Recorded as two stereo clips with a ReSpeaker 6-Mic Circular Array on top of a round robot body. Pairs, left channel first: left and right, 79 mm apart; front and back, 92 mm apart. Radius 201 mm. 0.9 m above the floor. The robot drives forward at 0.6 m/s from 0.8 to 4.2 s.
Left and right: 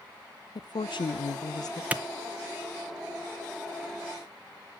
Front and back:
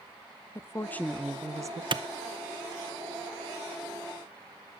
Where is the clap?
160° right, 0.7 m; by 2.0 s 165° right, 0.7 m.